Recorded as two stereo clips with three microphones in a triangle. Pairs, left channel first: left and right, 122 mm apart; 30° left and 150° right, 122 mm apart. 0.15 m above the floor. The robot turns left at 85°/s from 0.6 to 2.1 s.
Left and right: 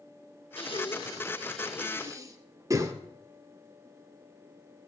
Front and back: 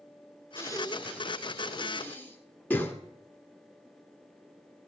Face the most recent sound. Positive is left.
turn(degrees=-40)